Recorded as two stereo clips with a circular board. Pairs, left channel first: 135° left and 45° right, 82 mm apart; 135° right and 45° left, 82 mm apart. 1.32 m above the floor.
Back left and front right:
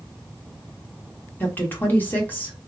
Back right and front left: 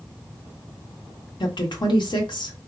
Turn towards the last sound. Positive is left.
turn(degrees=-155)